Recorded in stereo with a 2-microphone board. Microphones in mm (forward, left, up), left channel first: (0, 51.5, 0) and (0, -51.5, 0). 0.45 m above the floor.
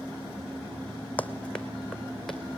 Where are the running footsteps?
15° left (ahead or behind), 1.1 m; by 2.6 s centre (ahead or behind), 2.5 m.